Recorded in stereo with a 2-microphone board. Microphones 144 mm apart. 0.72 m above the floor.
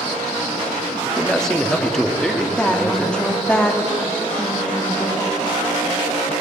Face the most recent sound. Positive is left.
turn(degrees=10)  # may be behind; listen again after turning